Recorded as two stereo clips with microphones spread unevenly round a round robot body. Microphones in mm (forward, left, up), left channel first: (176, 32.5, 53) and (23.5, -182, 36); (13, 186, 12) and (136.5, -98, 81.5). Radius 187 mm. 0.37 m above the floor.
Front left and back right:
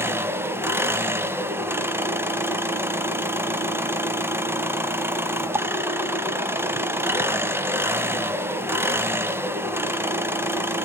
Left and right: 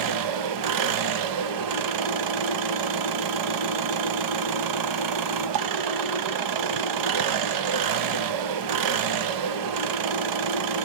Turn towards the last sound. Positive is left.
turn(degrees=-45)